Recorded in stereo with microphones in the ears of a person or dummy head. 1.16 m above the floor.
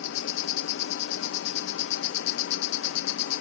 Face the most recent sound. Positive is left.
turn(degrees=70)  # may be behind; listen again after turning